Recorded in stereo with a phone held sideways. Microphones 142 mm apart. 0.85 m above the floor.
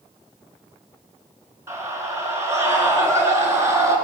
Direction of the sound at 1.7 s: 20° right (ahead or behind).